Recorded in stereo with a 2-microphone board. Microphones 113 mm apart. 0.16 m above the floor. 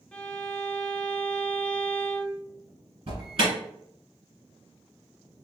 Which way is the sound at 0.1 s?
10° left (ahead or behind).